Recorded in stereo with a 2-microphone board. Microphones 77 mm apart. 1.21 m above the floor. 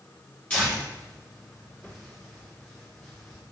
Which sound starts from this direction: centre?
Tearing paper, at 0.5 s.